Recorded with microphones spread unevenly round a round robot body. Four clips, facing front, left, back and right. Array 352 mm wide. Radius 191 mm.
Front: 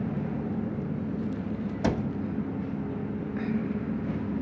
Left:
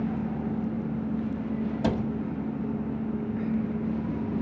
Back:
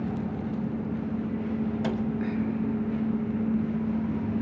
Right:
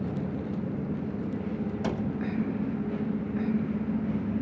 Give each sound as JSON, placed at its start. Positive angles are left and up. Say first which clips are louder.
{"t": 1.8, "sound": "a cupboard door", "louder": "left 5 dB, front 1 dB", "azimuth_deg": 40, "distance_m": 1.1}